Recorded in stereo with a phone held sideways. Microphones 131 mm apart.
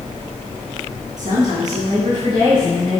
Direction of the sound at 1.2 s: 70° right (ahead or behind).